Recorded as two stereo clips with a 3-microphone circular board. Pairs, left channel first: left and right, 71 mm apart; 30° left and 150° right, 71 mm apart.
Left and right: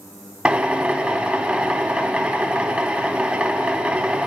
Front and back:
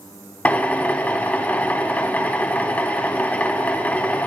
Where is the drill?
30° right, 0.5 m.